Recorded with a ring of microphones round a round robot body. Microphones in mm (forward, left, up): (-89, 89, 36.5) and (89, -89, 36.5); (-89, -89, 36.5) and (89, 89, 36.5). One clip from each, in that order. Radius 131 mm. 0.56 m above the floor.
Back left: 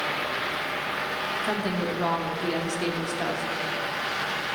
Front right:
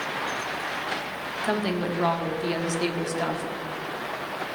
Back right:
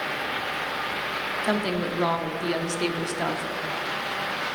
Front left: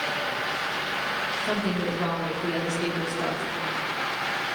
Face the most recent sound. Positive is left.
turn(degrees=-115)